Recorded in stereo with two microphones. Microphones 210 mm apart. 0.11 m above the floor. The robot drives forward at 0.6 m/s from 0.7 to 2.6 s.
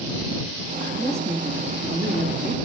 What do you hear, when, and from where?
1.0 s a woman speaking: 15° right (ahead or behind), 1.3 m; by 2.6 s 10° right (ahead or behind), 2.0 m